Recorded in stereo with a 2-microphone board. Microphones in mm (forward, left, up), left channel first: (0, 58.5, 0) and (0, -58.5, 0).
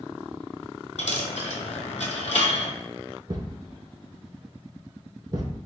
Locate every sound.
1.0 s a dropped coin: 85° left, 0.6 m
3.3 s a thud: 40° right (ahead or behind), 0.6 m